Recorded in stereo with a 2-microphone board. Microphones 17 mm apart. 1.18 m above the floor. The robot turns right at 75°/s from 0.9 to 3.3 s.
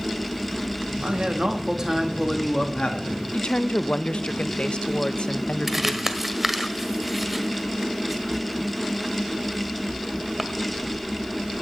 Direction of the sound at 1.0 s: 90° right.